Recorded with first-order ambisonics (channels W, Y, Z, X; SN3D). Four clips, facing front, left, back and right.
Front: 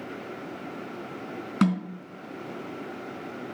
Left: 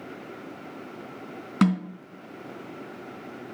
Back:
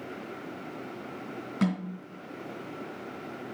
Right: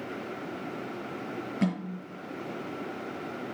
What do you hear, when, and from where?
1.6 s a snare drum: 65° left, 3 m